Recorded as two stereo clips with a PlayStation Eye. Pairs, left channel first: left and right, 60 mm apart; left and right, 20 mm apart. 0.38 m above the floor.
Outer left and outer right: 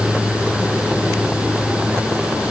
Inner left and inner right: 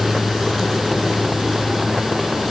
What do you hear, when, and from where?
Only background noise.